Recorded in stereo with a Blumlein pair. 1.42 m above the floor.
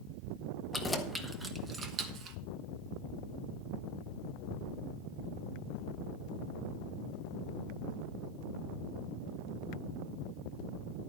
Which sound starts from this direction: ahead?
Keys jangling, at 0.7 s.